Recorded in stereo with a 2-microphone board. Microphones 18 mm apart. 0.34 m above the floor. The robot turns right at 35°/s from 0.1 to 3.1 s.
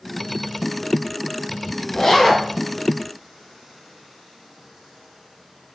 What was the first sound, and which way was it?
A zipper, 20° left (ahead or behind).